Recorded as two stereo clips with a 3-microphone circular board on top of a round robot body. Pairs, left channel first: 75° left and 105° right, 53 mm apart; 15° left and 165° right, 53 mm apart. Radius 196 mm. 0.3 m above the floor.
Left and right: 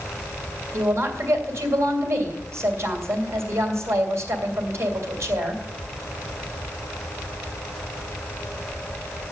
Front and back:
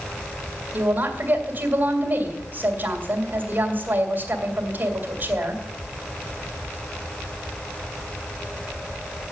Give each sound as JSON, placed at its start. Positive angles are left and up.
{"t": 0.7, "sound": "a woman speaking", "azimuth_deg": -115, "distance_m": 3.0}